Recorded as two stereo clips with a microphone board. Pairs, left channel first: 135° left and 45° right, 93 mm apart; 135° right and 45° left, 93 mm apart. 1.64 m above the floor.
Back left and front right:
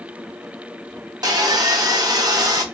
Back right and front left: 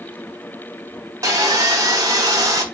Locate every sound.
1.2 s sawing: 5° right, 0.9 m